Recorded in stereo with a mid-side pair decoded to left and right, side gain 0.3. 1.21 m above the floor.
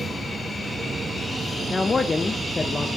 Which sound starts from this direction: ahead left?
A man speaking, at 1.7 s.